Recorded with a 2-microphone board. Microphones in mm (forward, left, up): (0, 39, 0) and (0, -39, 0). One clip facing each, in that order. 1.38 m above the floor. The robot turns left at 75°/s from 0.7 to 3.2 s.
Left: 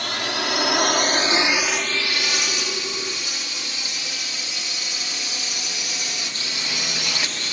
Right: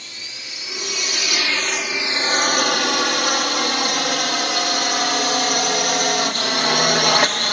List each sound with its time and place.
0.0 s a drone: 70° left (ahead or behind); by 7.5 s 60° right (ahead or behind)